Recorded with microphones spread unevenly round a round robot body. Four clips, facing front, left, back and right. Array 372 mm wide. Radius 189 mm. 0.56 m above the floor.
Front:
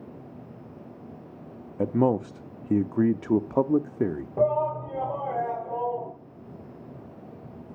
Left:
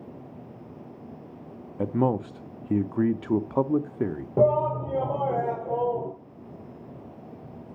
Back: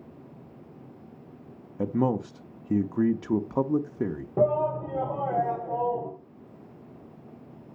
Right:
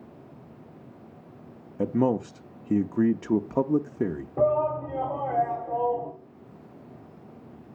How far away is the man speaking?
About 0.7 m.